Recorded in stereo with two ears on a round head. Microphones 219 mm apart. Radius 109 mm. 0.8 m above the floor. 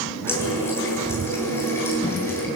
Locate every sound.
0.3 s a running tap: 10° left (ahead or behind), 8.5 m